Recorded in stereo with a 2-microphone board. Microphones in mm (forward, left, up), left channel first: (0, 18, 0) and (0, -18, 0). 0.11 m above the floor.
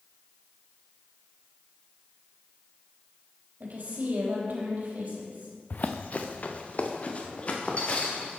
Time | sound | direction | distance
3.6 | a woman speaking | 55° right (ahead or behind) | 4 m
5.7 | running footsteps | 45° left (ahead or behind) | 0.7 m